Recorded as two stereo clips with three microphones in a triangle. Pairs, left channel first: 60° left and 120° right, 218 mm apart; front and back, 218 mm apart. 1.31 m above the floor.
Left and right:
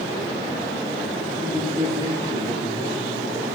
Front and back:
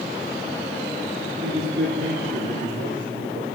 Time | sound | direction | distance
1.4 | a man speaking | 175° left | 5 m